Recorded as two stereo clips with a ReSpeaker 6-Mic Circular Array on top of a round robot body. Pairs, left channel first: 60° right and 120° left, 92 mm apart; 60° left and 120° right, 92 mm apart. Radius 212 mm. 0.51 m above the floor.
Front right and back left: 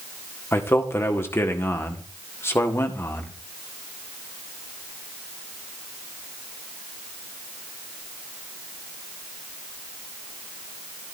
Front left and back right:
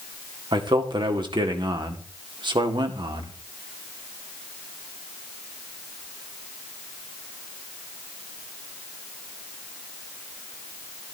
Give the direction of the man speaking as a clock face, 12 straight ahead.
4 o'clock.